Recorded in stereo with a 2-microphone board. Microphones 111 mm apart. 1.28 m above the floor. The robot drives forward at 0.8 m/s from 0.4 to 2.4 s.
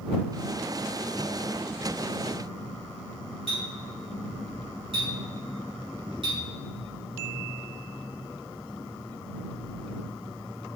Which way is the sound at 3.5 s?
65° right (ahead or behind).